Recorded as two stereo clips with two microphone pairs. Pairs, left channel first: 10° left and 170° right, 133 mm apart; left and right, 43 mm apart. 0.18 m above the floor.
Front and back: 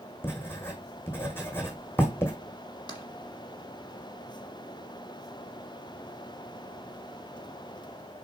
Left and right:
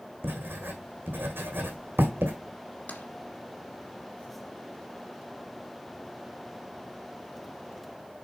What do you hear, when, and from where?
0.2 s writing: 60° right, 1.8 m
2.9 s tapping: 60° left, 2 m